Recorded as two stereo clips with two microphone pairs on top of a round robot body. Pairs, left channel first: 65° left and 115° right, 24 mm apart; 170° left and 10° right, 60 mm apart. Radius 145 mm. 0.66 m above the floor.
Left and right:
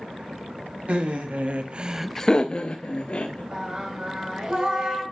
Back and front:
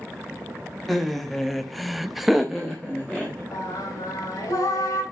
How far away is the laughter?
About 1.6 m.